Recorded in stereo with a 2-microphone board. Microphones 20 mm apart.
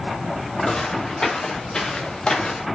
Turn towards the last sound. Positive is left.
turn(degrees=45)  # may be behind; listen again after turning